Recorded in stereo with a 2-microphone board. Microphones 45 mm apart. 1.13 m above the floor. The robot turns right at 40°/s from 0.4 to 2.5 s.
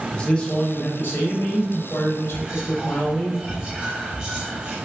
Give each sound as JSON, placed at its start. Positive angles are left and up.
{"t": 0.1, "sound": "a man speaking", "azimuth_deg": 25, "distance_m": 1.0}
{"t": 2.3, "sound": "whispering", "side_deg": -35, "distance_m": 1.5}